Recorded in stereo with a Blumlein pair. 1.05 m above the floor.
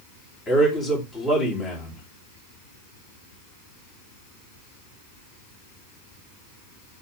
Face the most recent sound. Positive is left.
turn(degrees=15)